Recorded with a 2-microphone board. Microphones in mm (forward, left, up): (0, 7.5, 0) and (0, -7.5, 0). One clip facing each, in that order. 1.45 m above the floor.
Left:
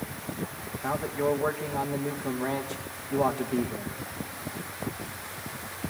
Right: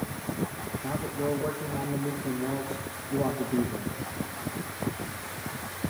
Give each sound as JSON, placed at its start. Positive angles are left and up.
{"t": 0.8, "sound": "a man speaking", "side_deg": 65, "distance_m": 2.0}